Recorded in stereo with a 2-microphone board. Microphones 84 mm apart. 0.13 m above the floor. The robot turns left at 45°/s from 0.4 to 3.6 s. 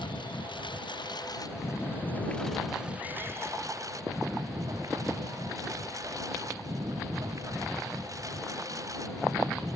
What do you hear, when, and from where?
0.0 s a lawn mower: 100° left; by 9.8 s 45° right